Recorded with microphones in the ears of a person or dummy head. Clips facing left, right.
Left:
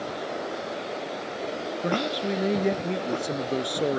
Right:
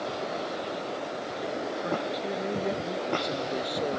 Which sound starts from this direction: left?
A man speaking, at 1.8 s.